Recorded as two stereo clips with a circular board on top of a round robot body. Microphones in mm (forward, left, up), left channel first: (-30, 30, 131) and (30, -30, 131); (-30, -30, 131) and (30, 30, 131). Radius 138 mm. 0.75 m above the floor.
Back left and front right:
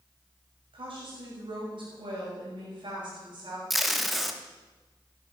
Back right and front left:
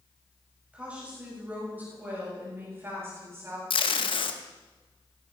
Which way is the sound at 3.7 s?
135° right.